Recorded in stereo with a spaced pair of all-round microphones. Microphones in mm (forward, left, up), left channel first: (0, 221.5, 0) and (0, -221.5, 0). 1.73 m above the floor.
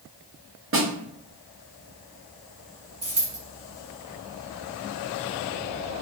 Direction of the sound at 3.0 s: 35° right (ahead or behind).